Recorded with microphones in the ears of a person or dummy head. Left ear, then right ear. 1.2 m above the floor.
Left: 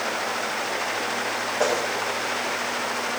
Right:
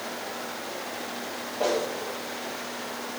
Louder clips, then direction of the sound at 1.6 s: Left 2 dB; 55° left (ahead or behind).